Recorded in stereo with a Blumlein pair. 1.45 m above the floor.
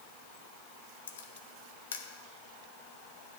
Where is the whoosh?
No whoosh in this recording.